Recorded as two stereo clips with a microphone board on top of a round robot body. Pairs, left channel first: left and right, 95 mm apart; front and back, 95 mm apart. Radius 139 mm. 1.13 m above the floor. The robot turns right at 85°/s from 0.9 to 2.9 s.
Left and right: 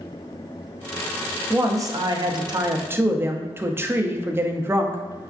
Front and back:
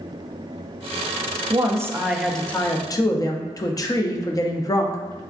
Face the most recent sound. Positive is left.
turn(degrees=-35)